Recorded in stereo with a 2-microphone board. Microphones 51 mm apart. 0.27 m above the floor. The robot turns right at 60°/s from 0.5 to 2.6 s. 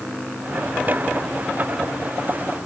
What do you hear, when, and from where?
Only background noise.